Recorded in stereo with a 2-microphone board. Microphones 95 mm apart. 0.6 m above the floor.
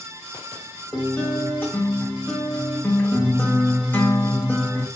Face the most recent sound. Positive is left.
turn(degrees=20)  # may be behind; listen again after turning